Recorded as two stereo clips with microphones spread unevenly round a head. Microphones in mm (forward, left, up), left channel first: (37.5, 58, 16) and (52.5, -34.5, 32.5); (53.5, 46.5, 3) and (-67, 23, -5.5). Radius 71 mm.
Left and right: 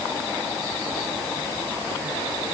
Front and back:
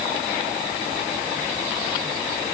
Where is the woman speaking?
I don't hear a woman speaking.